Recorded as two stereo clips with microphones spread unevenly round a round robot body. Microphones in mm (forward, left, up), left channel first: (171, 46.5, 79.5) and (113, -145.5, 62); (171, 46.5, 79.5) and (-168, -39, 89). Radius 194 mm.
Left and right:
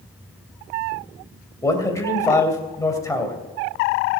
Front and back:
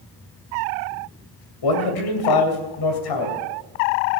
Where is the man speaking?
Straight ahead, 3 m.